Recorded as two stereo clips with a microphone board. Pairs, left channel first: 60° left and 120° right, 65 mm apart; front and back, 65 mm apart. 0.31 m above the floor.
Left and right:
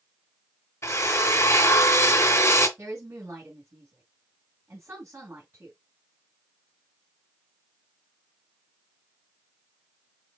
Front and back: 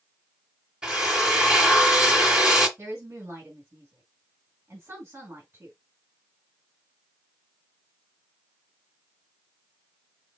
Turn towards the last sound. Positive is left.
turn(degrees=-140)